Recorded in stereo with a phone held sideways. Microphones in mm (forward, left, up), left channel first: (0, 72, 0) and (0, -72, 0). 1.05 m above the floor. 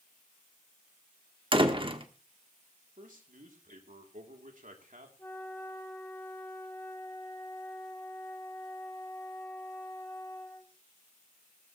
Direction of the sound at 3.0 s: 70° right (ahead or behind).